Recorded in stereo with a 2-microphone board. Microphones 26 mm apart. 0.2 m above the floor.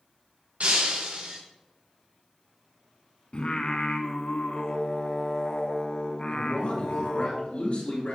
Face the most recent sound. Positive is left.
turn(degrees=65)  # may be behind; listen again after turning